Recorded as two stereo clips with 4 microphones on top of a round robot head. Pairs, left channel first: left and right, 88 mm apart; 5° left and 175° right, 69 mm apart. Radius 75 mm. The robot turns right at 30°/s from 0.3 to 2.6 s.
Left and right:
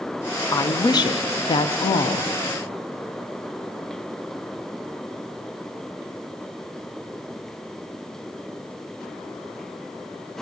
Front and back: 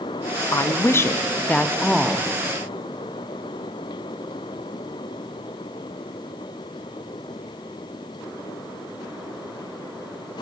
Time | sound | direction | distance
0.5 | a woman speaking | 45° left | 0.5 m